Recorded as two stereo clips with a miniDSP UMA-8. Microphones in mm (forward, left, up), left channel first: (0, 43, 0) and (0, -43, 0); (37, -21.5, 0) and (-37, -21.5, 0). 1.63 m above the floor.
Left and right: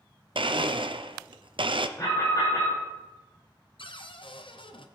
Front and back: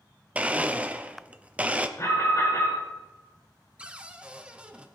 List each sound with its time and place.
0.3 s a blender: 105° right, 0.5 m
2.0 s an alarm: 40° left, 5.5 m
3.8 s a cupboard door: 105° left, 0.7 m